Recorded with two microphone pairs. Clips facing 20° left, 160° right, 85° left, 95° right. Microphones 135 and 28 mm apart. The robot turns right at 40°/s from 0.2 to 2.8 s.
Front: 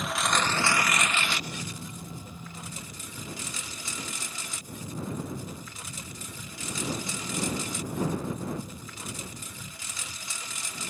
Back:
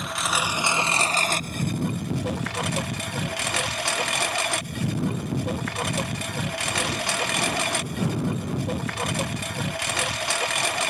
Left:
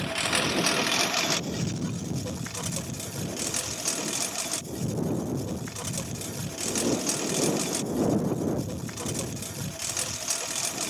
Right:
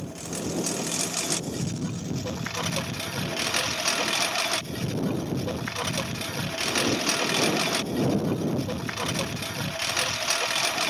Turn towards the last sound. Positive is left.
turn(degrees=-150)